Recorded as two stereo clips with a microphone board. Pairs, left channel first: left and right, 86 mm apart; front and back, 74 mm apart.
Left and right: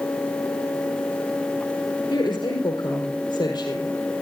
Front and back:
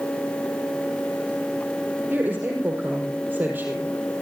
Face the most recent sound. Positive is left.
turn(degrees=115)